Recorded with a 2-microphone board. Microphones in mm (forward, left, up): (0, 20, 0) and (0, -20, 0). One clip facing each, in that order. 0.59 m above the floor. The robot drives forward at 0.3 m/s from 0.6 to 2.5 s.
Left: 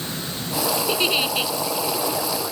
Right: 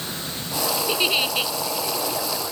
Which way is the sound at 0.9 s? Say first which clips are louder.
Right 1 dB; centre (ahead or behind).